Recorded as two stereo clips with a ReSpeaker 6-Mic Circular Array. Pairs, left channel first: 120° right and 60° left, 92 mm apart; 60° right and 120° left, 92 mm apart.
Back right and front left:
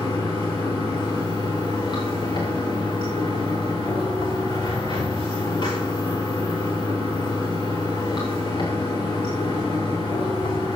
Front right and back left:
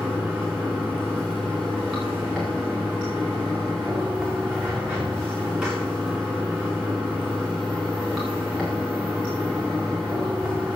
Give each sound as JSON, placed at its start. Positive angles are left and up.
{"t": 0.0, "sound": "running water", "azimuth_deg": -150, "distance_m": 5.5}